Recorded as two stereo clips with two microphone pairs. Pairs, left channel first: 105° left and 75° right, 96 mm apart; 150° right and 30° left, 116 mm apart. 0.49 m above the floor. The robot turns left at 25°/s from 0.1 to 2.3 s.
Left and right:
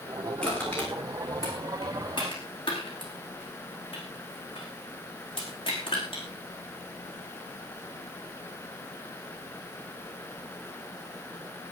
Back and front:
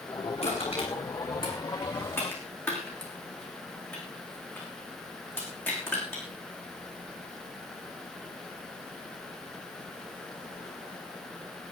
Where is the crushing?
175° right, 9 m; by 6.2 s 135° left, 9 m.